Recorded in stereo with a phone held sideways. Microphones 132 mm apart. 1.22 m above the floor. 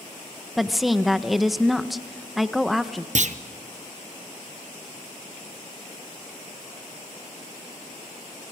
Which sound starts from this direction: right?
A clunk, at 3.1 s.